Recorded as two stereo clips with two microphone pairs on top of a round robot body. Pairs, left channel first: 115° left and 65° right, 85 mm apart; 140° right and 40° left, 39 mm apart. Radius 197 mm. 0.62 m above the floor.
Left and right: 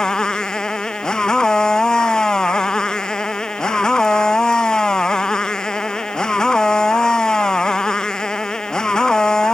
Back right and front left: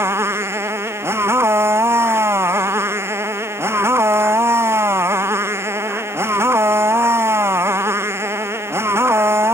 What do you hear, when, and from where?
0.0 s a motorcycle: 30° left